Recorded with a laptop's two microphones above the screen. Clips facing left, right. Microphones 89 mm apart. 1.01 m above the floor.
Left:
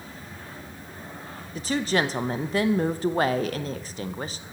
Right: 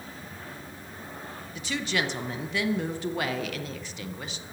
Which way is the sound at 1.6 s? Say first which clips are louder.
Left 5 dB; 40° left (ahead or behind).